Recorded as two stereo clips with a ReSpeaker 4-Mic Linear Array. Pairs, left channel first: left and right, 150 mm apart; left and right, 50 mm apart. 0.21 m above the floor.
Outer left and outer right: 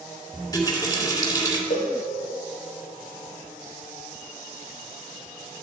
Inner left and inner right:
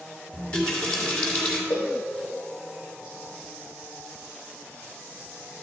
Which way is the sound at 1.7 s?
80° left.